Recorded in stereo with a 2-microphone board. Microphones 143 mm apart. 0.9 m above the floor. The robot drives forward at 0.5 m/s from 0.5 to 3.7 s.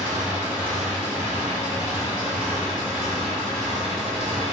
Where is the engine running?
10° right (ahead or behind), 1.3 m; by 4.5 s 5° right (ahead or behind), 3 m.